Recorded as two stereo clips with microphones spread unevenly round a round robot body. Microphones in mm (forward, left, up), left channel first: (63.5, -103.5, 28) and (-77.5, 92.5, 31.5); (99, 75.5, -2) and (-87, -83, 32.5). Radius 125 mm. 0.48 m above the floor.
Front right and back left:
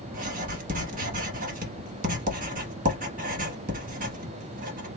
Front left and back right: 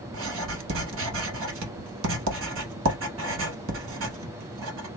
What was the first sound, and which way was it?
Writing, 175° right.